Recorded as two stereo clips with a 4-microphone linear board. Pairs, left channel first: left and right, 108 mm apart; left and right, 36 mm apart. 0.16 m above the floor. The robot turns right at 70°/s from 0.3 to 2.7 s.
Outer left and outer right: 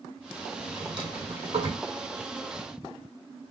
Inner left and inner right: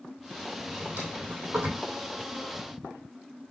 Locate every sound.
0.7 s a drawer: 35° right (ahead or behind), 2.5 m; by 1.9 s 65° right (ahead or behind), 2.5 m